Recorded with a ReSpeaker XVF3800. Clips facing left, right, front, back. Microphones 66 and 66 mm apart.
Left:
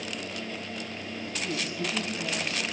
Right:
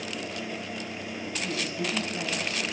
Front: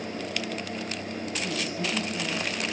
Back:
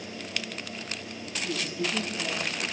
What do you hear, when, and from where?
1.4 s a woman speaking: 75° right, 3.5 m